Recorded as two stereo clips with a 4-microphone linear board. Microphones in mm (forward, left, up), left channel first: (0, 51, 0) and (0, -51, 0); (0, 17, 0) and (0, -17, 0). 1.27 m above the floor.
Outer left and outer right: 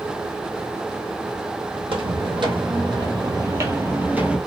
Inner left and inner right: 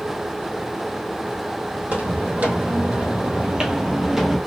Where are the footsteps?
55° right (ahead or behind), 2.5 m; by 4.4 s 10° right (ahead or behind), 1.5 m.